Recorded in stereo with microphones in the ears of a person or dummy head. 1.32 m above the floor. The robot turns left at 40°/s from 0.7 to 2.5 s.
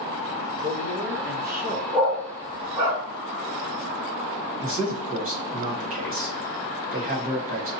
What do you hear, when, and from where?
0.6 s a man speaking: 95° right, 0.7 m; by 1.8 s 140° right, 0.7 m
1.9 s a dog barking: 5° right (ahead or behind), 1.3 m; by 3.0 s 25° right (ahead or behind), 1.3 m
4.6 s a man speaking: 40° right (ahead or behind), 0.9 m